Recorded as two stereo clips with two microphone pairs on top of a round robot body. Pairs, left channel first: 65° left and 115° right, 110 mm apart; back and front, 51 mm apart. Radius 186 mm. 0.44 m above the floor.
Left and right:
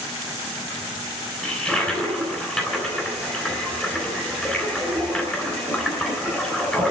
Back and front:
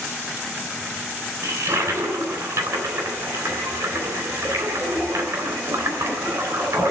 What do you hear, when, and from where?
1.4 s a toilet flushing: 15° right, 3.5 m